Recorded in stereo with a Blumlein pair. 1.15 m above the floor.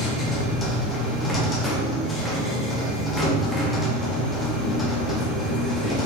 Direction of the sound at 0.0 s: 15° left.